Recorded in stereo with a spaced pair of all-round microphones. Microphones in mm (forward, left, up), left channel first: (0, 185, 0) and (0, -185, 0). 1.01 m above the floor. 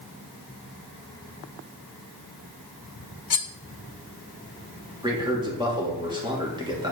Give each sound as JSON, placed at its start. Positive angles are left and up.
{"t": 3.3, "sound": "cutlery clinking", "side_deg": 75, "distance_m": 0.5}
{"t": 5.0, "sound": "a man speaking", "side_deg": -10, "distance_m": 1.9}